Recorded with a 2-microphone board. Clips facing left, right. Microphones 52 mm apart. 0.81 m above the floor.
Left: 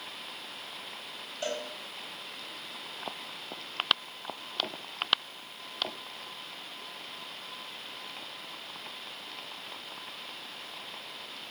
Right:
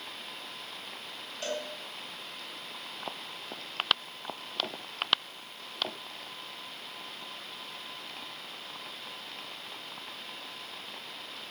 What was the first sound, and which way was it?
A cowbell, 15° left (ahead or behind).